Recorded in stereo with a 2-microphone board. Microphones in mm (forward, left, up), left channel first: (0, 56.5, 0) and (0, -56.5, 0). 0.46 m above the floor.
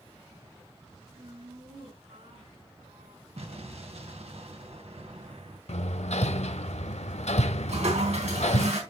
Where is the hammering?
75° left (ahead or behind), 0.7 m.